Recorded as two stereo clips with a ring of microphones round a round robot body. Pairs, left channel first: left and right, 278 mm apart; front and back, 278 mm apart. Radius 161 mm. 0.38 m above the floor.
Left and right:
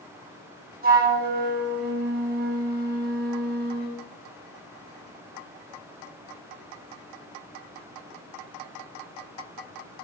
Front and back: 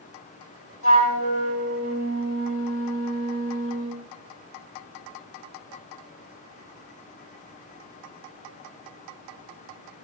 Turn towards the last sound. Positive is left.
turn(degrees=-35)